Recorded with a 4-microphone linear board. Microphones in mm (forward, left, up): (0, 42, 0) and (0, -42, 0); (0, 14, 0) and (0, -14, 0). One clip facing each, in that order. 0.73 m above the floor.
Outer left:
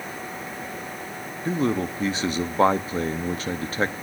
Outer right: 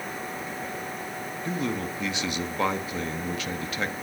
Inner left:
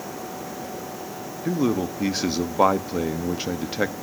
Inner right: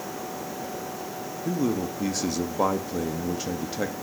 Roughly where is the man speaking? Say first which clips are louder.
Outer left 6 dB, inner left 4 dB; left.